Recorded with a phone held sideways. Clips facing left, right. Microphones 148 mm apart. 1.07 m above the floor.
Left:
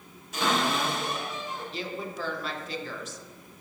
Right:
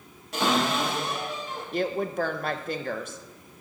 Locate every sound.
0.3 s a cupboard door: 85° right, 4 m
1.7 s a woman speaking: 55° right (ahead or behind), 0.7 m